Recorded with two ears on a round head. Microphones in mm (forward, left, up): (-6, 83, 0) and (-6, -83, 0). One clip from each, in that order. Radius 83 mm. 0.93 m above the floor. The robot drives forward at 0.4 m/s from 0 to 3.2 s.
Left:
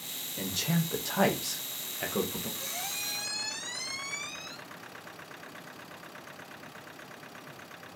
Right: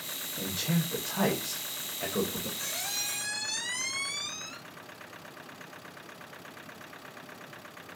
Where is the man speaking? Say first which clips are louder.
Left 1 dB; 50° left (ahead or behind), 0.6 m; by 2.5 s 35° left (ahead or behind), 0.8 m.